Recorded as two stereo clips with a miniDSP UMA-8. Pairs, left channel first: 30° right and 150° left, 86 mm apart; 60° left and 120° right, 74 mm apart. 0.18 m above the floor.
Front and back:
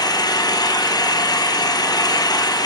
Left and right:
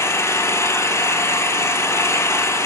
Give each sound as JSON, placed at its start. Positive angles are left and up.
{"t": 0.0, "sound": "an engine running", "azimuth_deg": 5, "distance_m": 1.1}